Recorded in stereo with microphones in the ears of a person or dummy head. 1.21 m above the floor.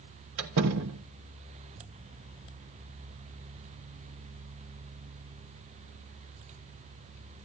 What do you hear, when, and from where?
0.4 s a door slam: 75° right (ahead or behind), 1.2 m